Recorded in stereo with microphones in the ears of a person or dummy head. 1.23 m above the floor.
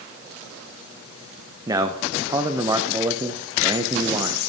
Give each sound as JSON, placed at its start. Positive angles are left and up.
{"t": 1.7, "sound": "a man speaking", "side_deg": -20, "distance_m": 0.5}